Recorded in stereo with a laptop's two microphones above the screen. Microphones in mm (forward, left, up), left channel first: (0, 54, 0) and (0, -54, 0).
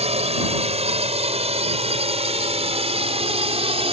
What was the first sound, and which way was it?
A drone, 75° right (ahead or behind).